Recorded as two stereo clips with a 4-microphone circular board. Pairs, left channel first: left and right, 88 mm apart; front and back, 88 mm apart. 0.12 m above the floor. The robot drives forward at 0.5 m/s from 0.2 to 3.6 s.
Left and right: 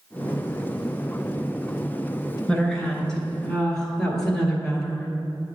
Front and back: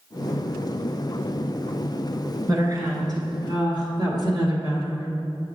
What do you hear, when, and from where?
2.5 s a woman speaking: 165° left, 1.4 m; by 5.1 s 170° left, 1.8 m